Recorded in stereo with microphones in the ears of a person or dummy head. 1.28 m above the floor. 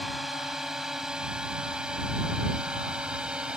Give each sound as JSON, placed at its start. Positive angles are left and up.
{"t": 0.0, "sound": "a drone", "side_deg": 0}